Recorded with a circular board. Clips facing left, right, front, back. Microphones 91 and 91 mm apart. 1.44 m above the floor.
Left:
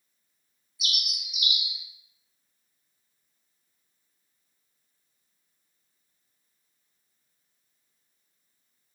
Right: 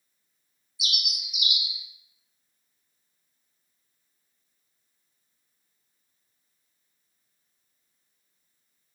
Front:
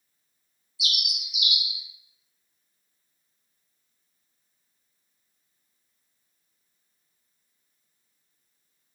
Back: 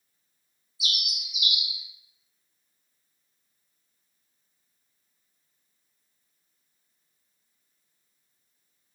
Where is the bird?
5° right, 1.4 m.